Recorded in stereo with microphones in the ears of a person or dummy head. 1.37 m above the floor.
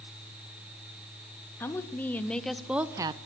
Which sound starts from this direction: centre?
A woman speaking, at 1.6 s.